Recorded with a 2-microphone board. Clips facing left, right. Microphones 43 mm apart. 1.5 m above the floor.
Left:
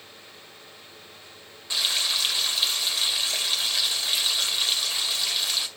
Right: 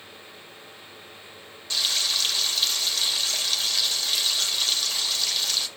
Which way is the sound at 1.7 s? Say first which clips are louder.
Even; 15° left (ahead or behind).